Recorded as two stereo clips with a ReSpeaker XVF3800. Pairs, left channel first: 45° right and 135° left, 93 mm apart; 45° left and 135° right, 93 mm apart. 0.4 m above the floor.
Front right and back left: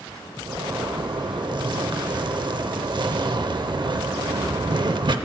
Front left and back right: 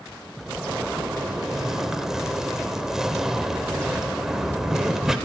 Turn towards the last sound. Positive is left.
turn(degrees=140)